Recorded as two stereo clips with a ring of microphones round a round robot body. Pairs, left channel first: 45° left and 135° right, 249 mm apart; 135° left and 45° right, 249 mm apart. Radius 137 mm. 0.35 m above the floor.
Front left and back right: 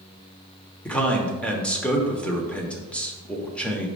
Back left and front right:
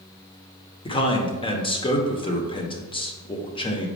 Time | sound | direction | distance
0.8 | a man speaking | 120° left | 1.1 m